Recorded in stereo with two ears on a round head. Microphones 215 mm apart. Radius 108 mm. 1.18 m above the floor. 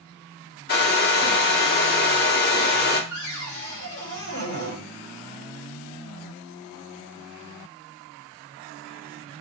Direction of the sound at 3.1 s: 50° left (ahead or behind).